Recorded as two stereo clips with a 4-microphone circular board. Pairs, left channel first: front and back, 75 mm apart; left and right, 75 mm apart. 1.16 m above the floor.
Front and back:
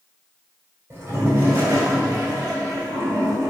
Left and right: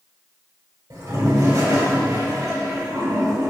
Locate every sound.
0.9 s a toilet flushing: 125° right, 2.5 m